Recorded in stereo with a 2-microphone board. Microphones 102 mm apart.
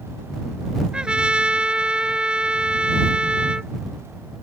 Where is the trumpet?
10° right (ahead or behind).